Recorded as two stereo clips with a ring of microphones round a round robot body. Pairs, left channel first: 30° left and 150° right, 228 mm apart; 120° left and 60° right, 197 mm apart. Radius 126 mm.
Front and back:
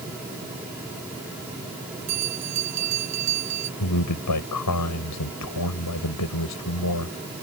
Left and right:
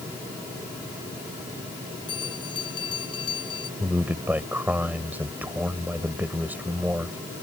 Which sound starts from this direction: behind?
A bell, at 2.1 s.